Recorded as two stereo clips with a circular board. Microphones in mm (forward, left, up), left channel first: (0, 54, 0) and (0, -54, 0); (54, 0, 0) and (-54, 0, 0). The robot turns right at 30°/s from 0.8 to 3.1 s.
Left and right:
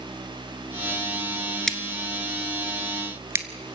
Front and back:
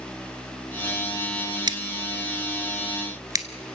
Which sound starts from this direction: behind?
Scissors, at 1.7 s.